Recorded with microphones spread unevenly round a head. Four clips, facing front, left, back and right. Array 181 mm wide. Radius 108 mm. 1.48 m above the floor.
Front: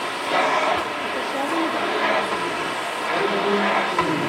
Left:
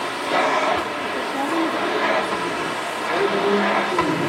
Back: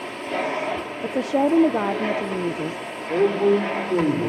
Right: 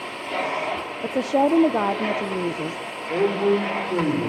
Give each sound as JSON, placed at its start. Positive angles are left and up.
{"t": 0.0, "sound": "a machine running", "azimuth_deg": 15, "distance_m": 1.5}
{"t": 1.0, "sound": "a woman speaking", "azimuth_deg": -165, "distance_m": 0.9}
{"t": 3.1, "sound": "a man speaking", "azimuth_deg": 175, "distance_m": 6.0}